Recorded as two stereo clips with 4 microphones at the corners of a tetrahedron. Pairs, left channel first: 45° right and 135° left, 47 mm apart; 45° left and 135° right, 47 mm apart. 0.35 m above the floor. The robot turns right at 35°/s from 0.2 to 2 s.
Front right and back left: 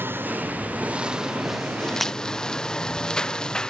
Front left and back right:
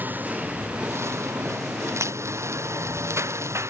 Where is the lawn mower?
175° left; by 3.7 s 120° right.